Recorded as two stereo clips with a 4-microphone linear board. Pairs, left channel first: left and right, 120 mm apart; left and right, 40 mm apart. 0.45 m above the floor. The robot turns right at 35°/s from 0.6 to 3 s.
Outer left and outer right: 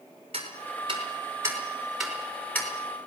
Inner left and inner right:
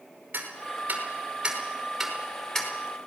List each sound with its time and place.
0.3 s ticking: 55° right (ahead or behind), 5.5 m; by 2.7 s 20° left (ahead or behind), 5.5 m